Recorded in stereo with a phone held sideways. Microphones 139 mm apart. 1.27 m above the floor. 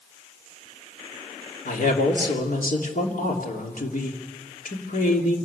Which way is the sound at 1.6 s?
85° left.